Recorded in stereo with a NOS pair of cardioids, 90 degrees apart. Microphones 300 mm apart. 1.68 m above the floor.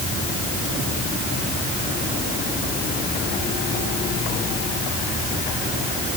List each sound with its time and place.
Only background noise.